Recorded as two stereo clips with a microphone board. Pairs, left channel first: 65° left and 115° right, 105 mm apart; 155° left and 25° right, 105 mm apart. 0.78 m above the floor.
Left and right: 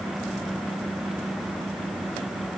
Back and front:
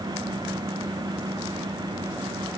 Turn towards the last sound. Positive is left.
No sound to turn to.